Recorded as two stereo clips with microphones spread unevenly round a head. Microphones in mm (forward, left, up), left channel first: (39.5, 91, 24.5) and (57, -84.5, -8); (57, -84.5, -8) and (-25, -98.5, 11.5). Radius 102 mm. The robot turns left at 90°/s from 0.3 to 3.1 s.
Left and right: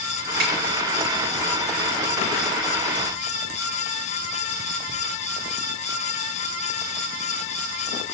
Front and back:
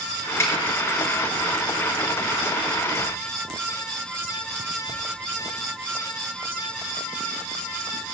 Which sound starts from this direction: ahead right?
A snare drum, at 0.4 s.